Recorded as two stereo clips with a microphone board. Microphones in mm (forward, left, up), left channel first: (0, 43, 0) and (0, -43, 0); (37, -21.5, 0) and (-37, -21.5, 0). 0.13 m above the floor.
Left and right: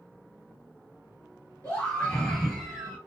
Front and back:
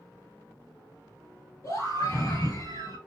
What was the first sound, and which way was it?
A scream, 15° left.